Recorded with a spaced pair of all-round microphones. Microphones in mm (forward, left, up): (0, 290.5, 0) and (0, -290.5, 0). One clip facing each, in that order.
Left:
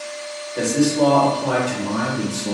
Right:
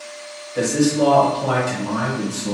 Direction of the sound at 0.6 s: 35° right (ahead or behind).